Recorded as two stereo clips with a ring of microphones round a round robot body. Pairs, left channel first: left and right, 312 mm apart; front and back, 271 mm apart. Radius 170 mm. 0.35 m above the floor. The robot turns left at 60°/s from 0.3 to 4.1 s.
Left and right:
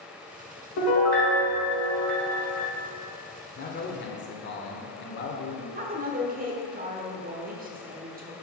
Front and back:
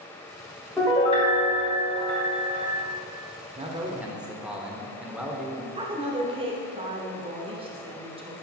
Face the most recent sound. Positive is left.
turn(degrees=-125)